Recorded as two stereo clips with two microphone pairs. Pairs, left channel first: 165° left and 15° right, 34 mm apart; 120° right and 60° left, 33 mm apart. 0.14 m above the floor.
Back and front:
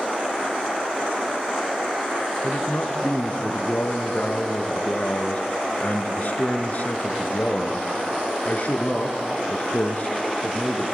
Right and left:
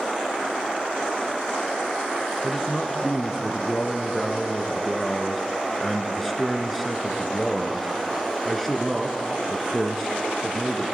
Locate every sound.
2.4 s a man speaking: 155° left, 1.8 m